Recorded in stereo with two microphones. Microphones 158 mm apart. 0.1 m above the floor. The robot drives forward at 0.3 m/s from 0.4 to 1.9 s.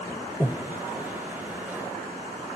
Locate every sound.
0.4 s breathing: 10° left (ahead or behind), 1.8 m